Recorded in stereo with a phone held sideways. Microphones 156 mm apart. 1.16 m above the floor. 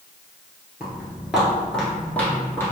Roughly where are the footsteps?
Centre.